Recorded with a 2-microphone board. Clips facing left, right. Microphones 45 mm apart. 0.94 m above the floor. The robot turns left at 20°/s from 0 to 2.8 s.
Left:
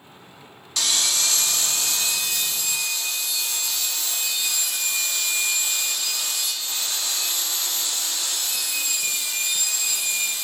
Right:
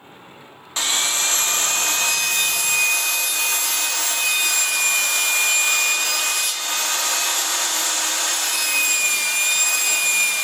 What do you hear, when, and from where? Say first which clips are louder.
0.8 s sawing: right 2 dB; 30° right, 1.1 m; by 10.4 s 70° right, 1.1 m